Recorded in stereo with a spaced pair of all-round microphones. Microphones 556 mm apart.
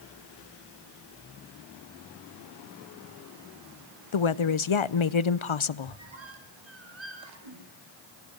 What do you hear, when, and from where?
4.1 s a woman speaking: 60° left (ahead or behind), 0.6 m
5.8 s a squeak: 55° right (ahead or behind), 6 m